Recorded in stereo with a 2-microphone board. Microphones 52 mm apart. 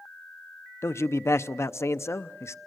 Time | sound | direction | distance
0.8 | a man speaking | 60° left (ahead or behind) | 0.6 m